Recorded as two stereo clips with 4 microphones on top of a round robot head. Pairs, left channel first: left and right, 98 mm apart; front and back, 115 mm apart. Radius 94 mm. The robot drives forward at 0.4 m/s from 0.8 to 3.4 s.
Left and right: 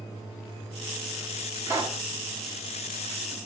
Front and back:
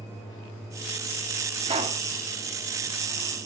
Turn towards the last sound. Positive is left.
turn(degrees=-160)